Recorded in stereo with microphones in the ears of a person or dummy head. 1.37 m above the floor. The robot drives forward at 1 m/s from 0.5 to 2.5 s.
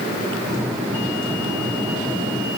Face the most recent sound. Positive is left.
No sound to turn to.